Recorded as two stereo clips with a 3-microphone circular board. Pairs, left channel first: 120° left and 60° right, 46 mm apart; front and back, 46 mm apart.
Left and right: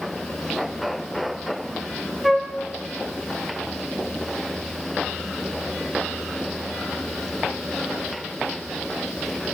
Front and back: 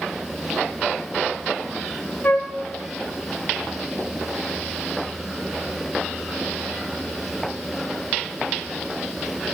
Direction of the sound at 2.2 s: 30° left.